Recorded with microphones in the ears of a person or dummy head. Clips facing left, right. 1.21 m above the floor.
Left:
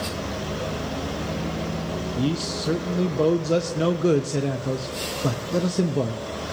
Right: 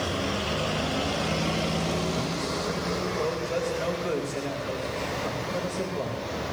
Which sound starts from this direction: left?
A man speaking, at 2.2 s.